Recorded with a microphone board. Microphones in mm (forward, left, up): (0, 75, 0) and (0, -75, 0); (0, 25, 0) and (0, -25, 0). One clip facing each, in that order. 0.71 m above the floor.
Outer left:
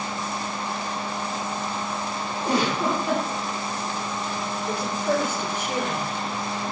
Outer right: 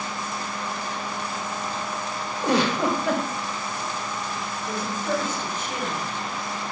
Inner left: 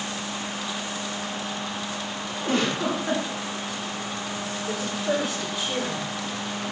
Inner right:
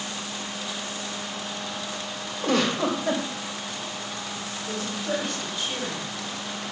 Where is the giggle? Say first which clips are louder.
Outer right 2 dB, inner right 1 dB; 80° right, 2.5 m.